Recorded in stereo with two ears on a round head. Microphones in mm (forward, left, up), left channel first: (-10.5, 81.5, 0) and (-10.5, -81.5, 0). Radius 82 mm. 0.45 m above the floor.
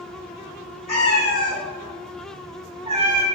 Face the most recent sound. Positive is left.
turn(degrees=-50)  # may be behind; listen again after turning